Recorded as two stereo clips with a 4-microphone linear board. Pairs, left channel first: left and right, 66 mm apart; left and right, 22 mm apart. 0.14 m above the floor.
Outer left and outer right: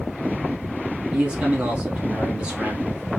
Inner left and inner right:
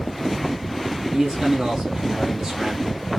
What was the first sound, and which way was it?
A man speaking, 20° right (ahead or behind).